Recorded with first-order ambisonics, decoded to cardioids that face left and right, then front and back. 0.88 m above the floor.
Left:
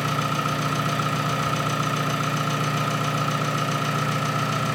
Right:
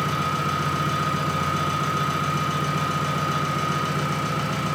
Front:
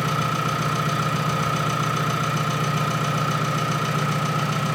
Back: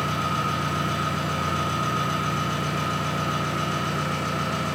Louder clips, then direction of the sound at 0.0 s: Even, front 2 dB; 55° left.